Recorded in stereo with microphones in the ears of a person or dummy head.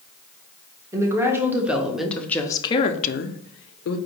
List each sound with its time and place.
0.9 s a woman speaking: 15° right (ahead or behind), 1.3 m; by 4.0 s 65° left (ahead or behind), 0.7 m